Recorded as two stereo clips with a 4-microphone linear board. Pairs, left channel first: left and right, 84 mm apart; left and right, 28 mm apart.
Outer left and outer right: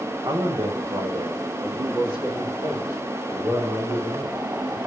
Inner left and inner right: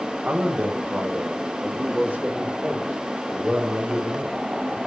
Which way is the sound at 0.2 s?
60° right (ahead or behind).